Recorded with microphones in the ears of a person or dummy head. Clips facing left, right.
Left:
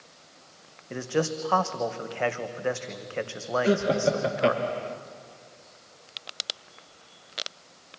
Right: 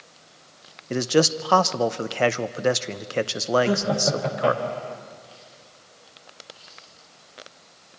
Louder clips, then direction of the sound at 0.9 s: Right 7 dB; 55° right (ahead or behind).